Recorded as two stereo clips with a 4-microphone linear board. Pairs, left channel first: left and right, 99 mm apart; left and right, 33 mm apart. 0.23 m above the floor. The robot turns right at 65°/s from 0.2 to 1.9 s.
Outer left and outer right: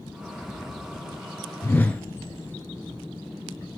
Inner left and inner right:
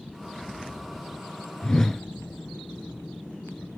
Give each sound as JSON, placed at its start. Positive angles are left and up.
{"t": 1.6, "sound": "a whoosh", "side_deg": 30, "distance_m": 0.8}